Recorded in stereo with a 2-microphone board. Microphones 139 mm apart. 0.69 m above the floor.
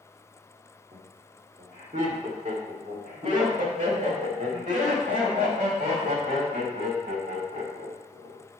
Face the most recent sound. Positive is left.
turn(degrees=-70)  # may be behind; listen again after turning